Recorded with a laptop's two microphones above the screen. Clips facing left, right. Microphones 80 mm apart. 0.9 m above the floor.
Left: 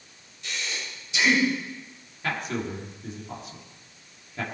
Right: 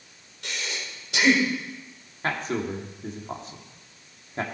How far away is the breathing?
About 3.5 m.